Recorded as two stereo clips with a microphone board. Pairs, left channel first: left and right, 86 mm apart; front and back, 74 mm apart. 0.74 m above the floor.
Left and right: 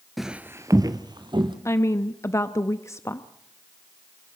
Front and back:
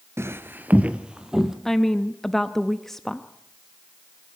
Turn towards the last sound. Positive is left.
turn(degrees=85)